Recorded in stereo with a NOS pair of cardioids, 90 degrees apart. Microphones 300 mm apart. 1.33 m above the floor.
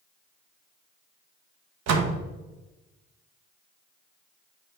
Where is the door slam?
65° right, 1.0 m.